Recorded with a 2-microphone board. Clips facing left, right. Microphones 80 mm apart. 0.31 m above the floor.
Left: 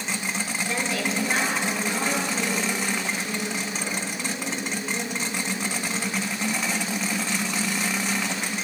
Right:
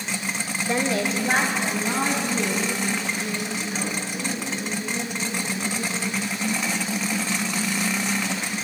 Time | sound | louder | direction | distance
0.7 | a woman speaking | right 6 dB | 25° right (ahead or behind) | 1.0 m